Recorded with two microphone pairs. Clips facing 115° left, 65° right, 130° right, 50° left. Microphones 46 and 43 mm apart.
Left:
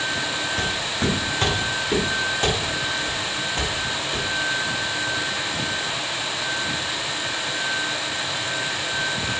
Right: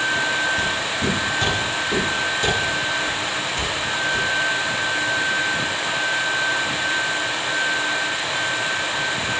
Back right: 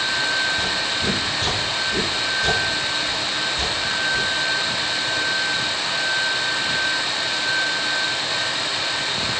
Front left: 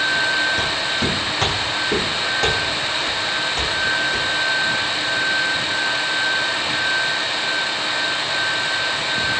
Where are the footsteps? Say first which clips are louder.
Right 2 dB, front left 2 dB; 75° left, 9 m; by 4.2 s 55° left, 9.5 m.